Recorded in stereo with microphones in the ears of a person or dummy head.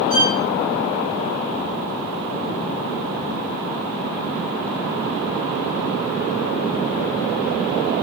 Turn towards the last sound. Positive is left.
turn(degrees=-25)  # may be behind; listen again after turning